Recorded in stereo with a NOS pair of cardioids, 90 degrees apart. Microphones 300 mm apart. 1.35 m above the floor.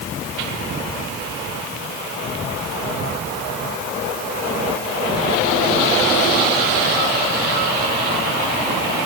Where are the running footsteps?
No running footsteps in this recording.